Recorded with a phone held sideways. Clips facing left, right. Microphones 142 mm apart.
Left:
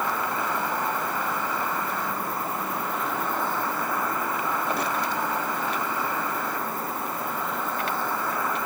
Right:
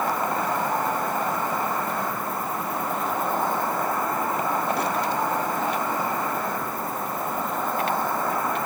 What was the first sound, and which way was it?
An insect, 45° right (ahead or behind).